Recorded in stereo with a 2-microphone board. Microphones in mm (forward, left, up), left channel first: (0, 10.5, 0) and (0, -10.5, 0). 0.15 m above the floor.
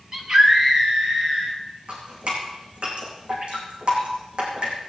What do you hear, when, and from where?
0.1 s a scream: 25° right (ahead or behind), 3.5 m
1.9 s dripping: 55° right (ahead or behind), 6.5 m